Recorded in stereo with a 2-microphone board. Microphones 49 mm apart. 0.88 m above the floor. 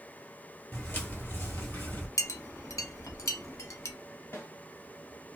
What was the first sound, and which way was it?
Footsteps, 45° left (ahead or behind).